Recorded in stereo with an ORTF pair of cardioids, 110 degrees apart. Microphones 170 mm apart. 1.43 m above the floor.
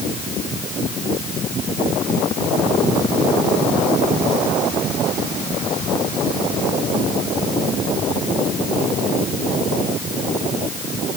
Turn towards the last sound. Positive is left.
No sound to turn to.